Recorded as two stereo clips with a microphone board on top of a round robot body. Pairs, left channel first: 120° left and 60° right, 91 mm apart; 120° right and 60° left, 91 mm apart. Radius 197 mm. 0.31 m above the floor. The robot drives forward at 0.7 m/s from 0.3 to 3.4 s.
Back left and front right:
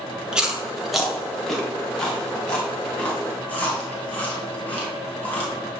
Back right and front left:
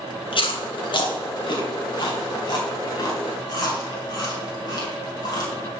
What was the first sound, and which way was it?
Chewing, 140° right.